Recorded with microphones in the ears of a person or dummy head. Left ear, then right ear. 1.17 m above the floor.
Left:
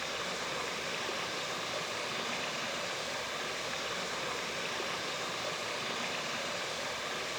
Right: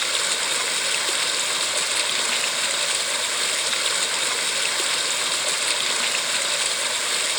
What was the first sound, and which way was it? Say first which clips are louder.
Running water: right 13 dB; 45° right (ahead or behind).